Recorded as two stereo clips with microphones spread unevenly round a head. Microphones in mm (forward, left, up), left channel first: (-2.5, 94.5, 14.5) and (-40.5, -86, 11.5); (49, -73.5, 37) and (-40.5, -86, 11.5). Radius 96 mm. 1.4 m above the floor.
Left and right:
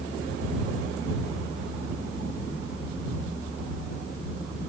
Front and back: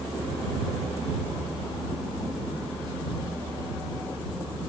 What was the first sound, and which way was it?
Only background noise.